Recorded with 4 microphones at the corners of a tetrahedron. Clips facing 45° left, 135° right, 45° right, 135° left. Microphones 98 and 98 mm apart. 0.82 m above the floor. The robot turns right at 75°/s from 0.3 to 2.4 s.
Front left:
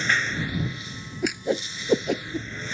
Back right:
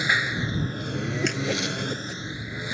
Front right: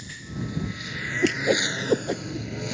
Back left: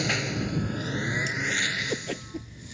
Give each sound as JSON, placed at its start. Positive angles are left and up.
{"t": 0.0, "sound": "a lawn mower", "azimuth_deg": 145}
{"t": 1.2, "sound": "a whoosh", "azimuth_deg": -45}